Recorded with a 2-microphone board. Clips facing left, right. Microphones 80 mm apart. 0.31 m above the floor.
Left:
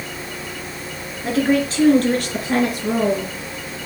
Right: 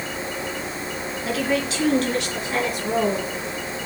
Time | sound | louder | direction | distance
1.2 | a woman speaking | left 6 dB | 35° left (ahead or behind) | 3.5 m